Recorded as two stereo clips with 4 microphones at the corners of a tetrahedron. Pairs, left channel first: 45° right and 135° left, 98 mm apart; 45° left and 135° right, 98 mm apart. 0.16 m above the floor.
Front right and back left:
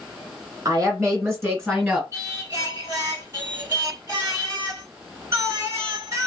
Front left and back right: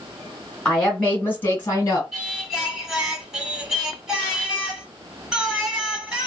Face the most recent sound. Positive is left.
turn(degrees=145)